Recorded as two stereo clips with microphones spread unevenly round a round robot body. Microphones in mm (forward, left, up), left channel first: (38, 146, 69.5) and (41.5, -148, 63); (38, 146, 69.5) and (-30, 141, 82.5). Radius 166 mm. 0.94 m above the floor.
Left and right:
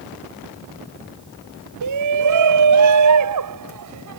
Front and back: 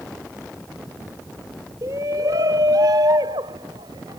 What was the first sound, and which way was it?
A shout, 115° right.